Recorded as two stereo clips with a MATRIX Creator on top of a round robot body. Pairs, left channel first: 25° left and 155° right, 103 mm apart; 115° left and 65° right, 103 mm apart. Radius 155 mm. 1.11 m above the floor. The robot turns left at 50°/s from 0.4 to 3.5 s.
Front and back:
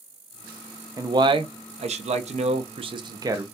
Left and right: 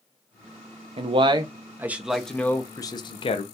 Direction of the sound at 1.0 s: 100° right.